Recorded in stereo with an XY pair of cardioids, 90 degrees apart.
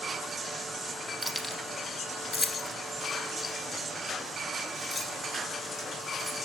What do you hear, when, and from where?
1.2 s keys jangling: 5° right, 0.8 m; by 6.4 s 45° left, 7 m